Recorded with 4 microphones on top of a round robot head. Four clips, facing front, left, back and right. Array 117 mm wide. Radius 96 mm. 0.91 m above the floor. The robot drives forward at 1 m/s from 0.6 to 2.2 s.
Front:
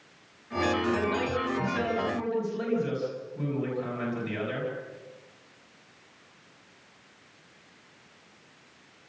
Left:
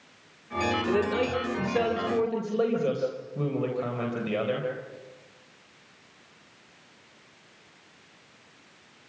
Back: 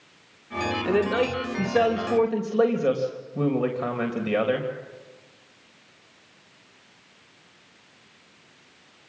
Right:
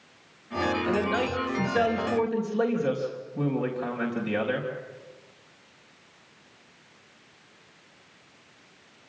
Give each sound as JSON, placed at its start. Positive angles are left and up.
{"t": 0.8, "sound": "a man speaking", "azimuth_deg": 170, "distance_m": 2.5}